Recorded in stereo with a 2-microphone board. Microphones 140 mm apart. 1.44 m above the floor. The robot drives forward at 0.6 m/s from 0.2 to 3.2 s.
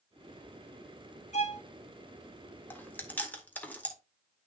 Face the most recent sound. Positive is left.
turn(degrees=10)  # may be behind; listen again after turning